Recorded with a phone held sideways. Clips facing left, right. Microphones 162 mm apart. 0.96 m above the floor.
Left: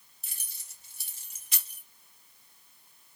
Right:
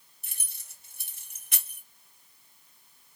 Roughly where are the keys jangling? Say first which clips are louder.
Right 1 dB; right.